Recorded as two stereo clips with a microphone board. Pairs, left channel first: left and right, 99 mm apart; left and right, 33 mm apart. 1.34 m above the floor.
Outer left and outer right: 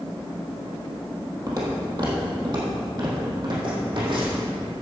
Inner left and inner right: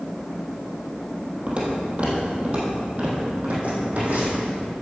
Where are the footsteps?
40° right (ahead or behind), 2.5 m; by 4.5 s 55° right (ahead or behind), 4 m.